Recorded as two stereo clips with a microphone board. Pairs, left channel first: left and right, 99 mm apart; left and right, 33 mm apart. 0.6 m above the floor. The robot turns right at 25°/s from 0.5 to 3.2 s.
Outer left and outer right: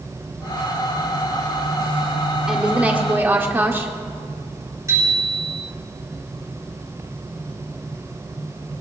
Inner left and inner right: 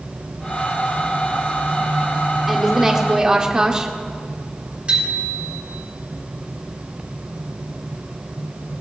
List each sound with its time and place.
2.5 s a woman speaking: 5° right (ahead or behind), 1.5 m; by 3.9 s 20° right (ahead or behind), 1.5 m
4.9 s a bicycle bell: 30° right (ahead or behind), 5.5 m